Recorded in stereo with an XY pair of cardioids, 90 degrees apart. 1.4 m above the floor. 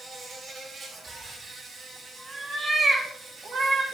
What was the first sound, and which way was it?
An insect, 65° right.